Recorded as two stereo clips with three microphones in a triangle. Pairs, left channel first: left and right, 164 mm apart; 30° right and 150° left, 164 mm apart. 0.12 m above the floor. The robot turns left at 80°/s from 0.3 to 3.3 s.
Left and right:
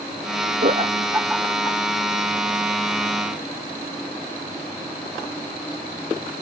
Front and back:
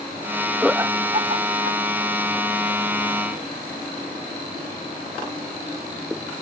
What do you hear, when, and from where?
0.6 s laughter: 120° right; by 1.8 s 145° left